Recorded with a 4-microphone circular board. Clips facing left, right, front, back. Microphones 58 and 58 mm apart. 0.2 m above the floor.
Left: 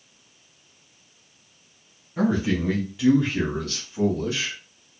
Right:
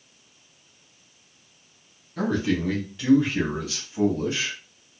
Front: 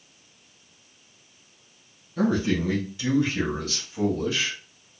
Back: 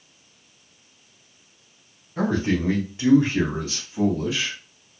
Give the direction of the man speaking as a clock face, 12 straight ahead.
7 o'clock.